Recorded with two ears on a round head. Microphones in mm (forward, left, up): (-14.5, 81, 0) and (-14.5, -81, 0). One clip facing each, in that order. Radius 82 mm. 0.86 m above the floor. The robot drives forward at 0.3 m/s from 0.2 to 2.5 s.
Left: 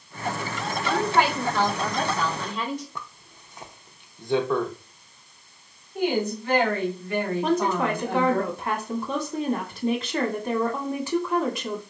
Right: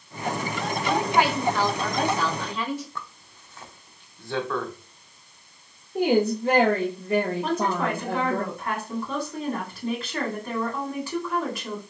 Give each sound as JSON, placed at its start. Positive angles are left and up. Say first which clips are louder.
{"t": 0.8, "sound": "a woman speaking", "louder": "even", "side_deg": -5, "distance_m": 1.7}
{"t": 3.0, "sound": "a zipper", "louder": "right 1 dB", "side_deg": 15, "distance_m": 0.6}
{"t": 6.0, "sound": "a woman speaking", "louder": "right 4 dB", "side_deg": -30, "distance_m": 1.0}
{"t": 7.4, "sound": "a woman speaking", "louder": "left 2 dB", "side_deg": 20, "distance_m": 1.9}